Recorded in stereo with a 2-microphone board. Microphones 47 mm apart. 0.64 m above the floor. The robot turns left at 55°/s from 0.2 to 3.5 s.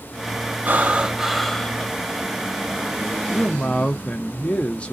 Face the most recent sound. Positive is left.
turn(degrees=25)  # may be behind; listen again after turning